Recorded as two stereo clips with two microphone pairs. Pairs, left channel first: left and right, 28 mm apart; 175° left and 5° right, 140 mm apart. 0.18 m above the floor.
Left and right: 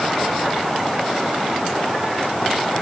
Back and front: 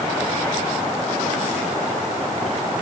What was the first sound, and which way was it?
Only background noise.